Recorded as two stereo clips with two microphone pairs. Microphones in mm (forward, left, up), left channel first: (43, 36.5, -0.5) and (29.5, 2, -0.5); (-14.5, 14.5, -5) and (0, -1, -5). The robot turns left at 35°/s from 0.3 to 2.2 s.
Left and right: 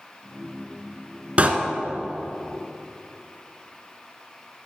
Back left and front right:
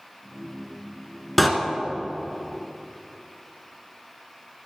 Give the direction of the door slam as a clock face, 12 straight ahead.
5 o'clock.